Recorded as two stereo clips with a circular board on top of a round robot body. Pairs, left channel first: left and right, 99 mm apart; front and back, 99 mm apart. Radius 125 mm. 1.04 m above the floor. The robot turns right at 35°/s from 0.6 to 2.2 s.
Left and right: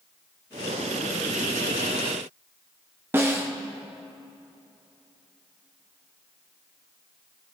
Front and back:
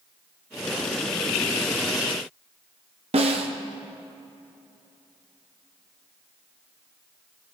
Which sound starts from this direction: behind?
A snare drum, at 3.1 s.